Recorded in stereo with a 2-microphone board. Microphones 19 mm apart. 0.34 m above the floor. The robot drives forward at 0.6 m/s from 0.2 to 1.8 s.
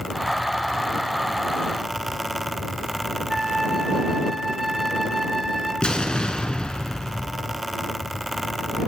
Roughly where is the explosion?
Left.